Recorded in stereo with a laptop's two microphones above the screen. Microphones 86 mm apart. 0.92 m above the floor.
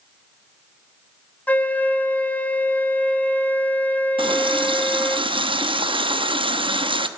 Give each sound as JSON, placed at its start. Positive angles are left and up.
{"t": 1.5, "sound": "a flute", "side_deg": 15, "distance_m": 1.2}
{"t": 4.2, "sound": "a running tap", "side_deg": -70, "distance_m": 0.8}